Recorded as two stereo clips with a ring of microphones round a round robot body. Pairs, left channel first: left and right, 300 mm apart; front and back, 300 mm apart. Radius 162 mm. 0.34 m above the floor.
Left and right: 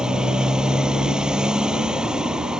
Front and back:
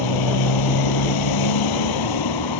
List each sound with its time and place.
0.0 s a motorcycle: 5° right